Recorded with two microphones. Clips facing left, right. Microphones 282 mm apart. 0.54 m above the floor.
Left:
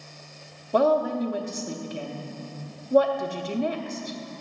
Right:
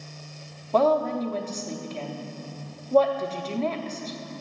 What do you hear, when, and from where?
0.7 s a woman speaking: 15° left (ahead or behind), 0.6 m